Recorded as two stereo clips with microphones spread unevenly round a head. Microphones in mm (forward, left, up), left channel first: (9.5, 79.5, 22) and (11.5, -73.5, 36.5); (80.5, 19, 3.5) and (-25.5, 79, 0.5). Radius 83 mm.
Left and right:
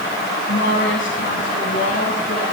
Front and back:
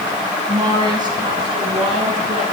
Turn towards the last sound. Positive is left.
turn(degrees=110)